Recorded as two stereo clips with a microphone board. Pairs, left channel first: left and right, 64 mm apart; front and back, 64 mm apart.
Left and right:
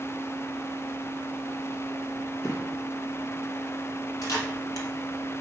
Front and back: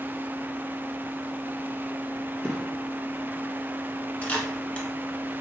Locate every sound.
2.4 s a gunshot: 75° left, 1.1 m
4.2 s a camera shutter: 65° left, 1.2 m